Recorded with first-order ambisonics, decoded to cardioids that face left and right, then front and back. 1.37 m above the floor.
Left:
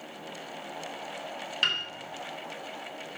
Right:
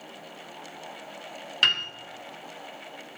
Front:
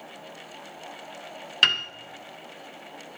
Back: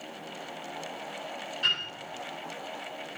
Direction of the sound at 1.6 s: 15° right.